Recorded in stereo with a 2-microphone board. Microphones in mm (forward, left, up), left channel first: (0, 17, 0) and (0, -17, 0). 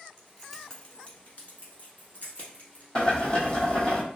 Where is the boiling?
30° left (ahead or behind), 0.9 m.